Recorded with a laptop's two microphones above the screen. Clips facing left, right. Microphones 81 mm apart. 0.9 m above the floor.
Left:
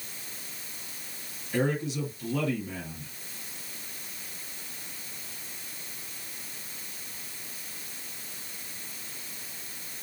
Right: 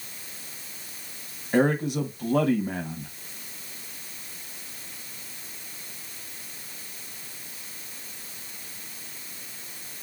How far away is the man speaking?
About 1.0 m.